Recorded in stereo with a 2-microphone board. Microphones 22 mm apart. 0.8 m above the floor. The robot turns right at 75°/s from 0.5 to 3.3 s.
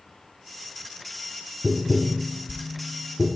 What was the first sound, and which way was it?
Tapping, 40° left (ahead or behind).